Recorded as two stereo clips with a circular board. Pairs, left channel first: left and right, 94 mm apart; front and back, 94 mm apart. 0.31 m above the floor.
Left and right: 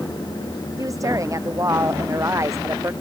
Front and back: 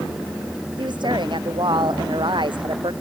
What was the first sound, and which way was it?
A woman speaking, 145° right.